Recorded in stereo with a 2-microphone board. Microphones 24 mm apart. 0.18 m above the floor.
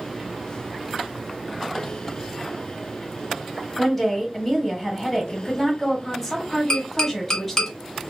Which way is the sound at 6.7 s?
25° left (ahead or behind).